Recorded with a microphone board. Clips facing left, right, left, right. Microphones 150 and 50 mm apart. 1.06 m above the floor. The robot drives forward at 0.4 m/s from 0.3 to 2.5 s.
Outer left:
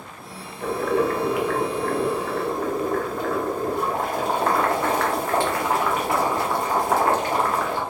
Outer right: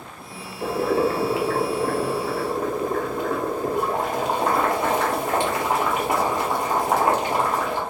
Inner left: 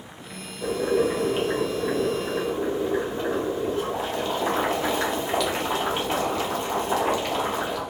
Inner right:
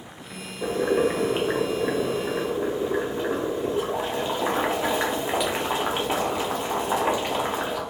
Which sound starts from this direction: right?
Boiling, at 0.6 s.